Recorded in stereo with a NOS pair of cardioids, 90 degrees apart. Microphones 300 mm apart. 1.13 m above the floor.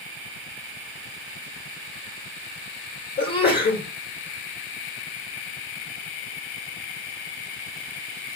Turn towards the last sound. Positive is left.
turn(degrees=40)